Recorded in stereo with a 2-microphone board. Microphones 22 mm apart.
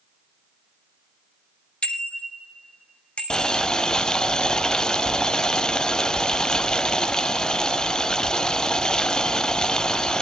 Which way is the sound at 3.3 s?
40° left (ahead or behind).